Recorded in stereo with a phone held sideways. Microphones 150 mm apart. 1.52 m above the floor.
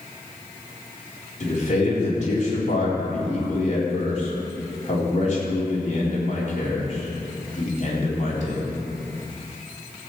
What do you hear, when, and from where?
1.4 s a man speaking: 50° left (ahead or behind), 4 m